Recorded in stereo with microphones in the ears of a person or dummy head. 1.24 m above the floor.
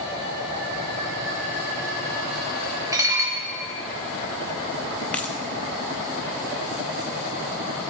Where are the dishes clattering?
15° right (ahead or behind), 1.3 m.